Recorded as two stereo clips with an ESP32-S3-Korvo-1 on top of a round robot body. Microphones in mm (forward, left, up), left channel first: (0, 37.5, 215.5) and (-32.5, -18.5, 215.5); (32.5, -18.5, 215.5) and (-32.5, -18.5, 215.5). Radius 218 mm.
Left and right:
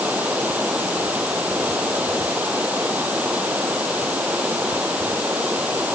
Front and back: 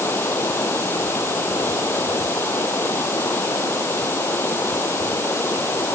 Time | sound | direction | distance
0.0 | running water | 50° right | ?